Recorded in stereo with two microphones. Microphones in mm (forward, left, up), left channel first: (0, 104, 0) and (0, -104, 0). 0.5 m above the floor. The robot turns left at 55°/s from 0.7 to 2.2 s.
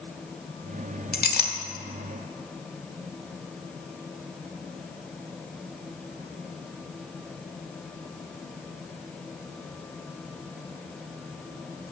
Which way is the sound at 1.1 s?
50° left (ahead or behind).